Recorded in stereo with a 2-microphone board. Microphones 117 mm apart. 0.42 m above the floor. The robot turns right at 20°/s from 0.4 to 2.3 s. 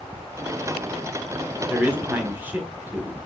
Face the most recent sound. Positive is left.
turn(degrees=-15)  # may be behind; listen again after turning